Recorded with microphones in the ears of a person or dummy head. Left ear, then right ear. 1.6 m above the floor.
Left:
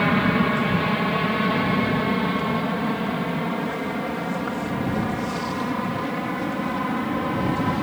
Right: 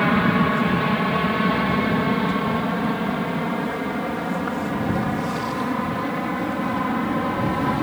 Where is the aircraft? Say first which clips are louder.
Right 1 dB; 5° left (ahead or behind); by 7.8 s centre (ahead or behind).